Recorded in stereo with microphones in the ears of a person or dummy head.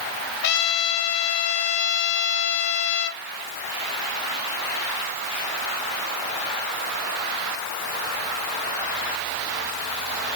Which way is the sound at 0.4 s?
65° left (ahead or behind).